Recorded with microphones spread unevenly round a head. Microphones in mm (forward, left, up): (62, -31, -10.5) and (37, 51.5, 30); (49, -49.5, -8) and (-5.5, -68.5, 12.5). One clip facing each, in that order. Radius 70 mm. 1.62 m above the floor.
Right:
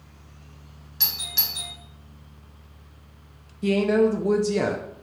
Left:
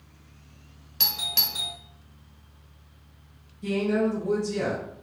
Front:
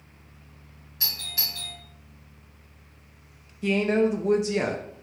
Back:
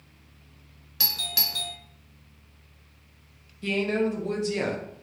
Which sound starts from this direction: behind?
A doorbell, at 1.0 s.